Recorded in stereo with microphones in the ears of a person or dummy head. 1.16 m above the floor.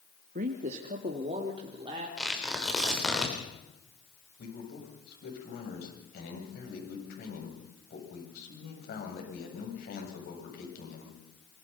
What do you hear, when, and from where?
0.3 s a man speaking: 50° right (ahead or behind), 1.7 m; by 2.1 s 30° right (ahead or behind), 3.5 m
2.2 s tearing paper: centre (ahead or behind), 3.5 m
4.4 s a man speaking: 55° left (ahead or behind), 8 m